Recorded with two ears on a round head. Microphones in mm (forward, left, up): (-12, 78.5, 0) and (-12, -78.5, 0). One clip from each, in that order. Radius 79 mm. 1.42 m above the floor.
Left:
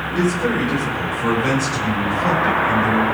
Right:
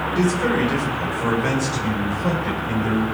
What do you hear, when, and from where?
0.1 s a man speaking: 10° right (ahead or behind), 4 m; by 3.0 s 10° left (ahead or behind), 6 m